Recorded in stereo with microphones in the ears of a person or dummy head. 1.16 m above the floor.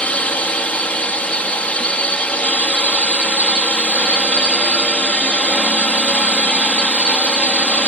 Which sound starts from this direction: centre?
A drone, at 0.0 s.